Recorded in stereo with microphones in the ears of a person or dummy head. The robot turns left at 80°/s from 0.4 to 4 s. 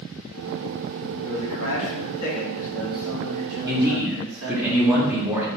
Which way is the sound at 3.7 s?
20° right (ahead or behind).